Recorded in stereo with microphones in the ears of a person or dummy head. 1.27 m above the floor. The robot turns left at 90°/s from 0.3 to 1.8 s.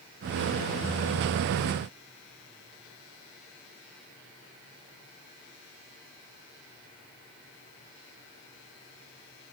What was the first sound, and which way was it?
Only background noise.